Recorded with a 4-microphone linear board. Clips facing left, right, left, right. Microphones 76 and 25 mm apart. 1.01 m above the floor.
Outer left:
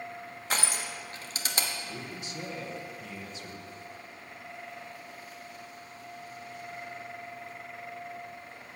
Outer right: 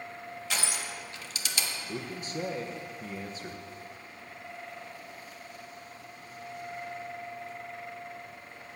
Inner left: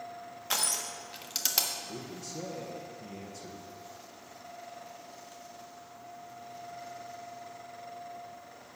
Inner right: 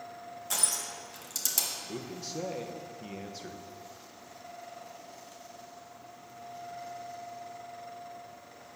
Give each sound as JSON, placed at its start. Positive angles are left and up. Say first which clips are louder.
{"t": 0.5, "sound": "crushing", "louder": "outer left 3 dB, inner left 2 dB", "side_deg": 40, "distance_m": 0.9}
{"t": 1.9, "sound": "a man speaking", "louder": "outer right 3 dB, inner right 2 dB", "side_deg": -40, "distance_m": 0.9}